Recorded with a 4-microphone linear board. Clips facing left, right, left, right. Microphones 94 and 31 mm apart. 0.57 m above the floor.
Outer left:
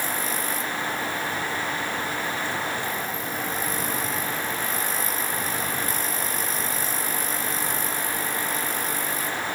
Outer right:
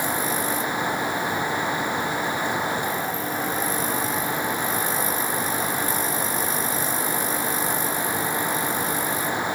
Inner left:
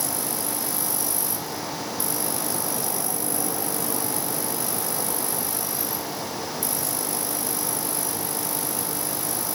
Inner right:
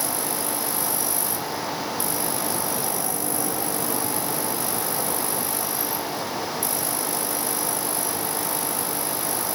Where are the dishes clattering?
No dishes clattering in this recording.